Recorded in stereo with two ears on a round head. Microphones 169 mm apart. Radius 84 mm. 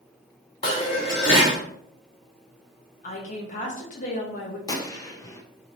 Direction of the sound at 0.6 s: 30° left (ahead or behind).